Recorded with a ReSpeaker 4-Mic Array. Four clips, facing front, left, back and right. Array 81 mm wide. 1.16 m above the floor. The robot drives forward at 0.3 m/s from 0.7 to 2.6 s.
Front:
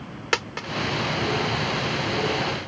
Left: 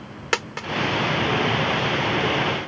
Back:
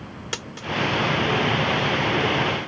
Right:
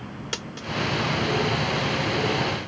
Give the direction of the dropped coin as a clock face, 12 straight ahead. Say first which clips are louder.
Left 12 dB, front 8 dB; 10 o'clock.